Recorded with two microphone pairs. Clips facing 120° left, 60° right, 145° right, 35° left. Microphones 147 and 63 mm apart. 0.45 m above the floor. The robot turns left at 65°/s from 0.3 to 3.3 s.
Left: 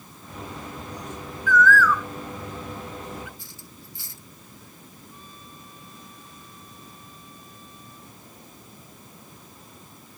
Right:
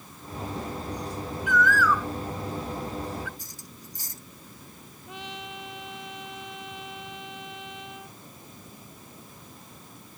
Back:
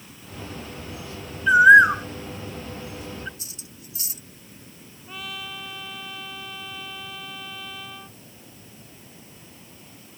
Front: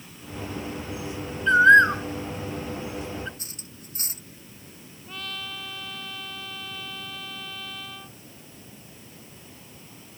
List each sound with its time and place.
1.5 s a bird: 90° right; by 3.3 s 150° left
3.4 s cutlery clinking: 10° right
5.1 s a trumpet: 65° right